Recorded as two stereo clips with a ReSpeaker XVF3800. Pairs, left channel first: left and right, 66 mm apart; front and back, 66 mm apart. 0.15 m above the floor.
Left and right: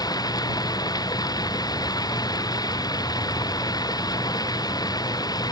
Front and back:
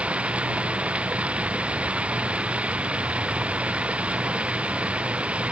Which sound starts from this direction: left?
Running water, at 0.0 s.